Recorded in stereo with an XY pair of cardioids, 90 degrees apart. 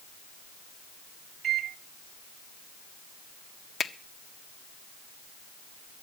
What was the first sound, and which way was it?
A microwave, 70° right.